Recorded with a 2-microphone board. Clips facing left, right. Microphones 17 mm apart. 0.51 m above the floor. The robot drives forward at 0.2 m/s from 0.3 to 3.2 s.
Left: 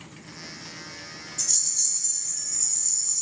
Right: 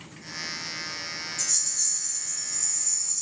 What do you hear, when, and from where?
1.4 s a rattle: 40° left (ahead or behind), 1.6 m; by 3.2 s 35° left (ahead or behind), 1.7 m